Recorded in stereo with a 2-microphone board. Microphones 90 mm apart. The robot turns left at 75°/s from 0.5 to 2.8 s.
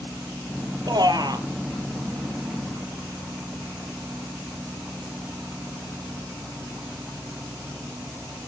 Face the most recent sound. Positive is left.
turn(degrees=140)